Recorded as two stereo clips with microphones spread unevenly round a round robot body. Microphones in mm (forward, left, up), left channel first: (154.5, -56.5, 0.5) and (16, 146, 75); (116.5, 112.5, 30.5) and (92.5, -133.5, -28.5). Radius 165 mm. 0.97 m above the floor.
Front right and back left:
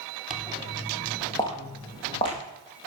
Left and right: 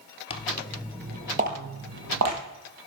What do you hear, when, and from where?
0.3 s footsteps: 65° left, 1.1 m; by 2.4 s 140° right, 1.8 m